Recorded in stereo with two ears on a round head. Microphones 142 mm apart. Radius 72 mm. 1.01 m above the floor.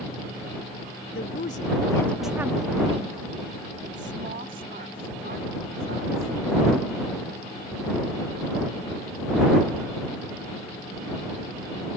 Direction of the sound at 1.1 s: 65° left (ahead or behind).